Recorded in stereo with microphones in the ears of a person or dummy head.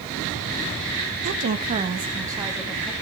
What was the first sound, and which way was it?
A woman speaking, 65° right (ahead or behind).